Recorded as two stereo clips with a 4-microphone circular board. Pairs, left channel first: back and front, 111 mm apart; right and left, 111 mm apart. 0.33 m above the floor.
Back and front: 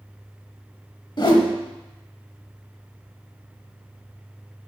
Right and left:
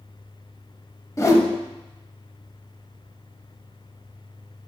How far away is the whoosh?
About 0.7 m.